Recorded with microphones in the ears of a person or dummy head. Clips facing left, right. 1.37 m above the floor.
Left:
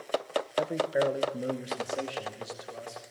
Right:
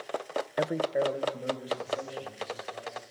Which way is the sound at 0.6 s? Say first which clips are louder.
Even; 25° right (ahead or behind).